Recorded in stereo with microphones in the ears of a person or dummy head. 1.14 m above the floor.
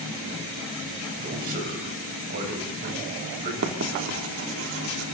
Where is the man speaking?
50° right (ahead or behind), 6.5 m.